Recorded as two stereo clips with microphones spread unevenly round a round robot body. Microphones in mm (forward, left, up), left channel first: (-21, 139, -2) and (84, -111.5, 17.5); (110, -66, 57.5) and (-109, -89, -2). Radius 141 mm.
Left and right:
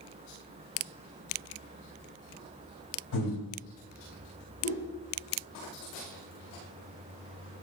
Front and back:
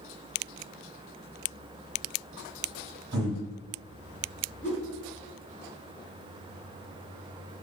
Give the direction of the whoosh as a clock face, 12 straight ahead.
10 o'clock.